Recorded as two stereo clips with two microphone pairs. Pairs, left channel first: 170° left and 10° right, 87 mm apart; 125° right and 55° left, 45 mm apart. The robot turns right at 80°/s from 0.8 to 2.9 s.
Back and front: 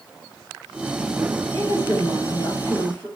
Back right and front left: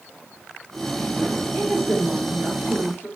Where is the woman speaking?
140° left, 1.5 m; by 3.1 s 110° right, 1.5 m.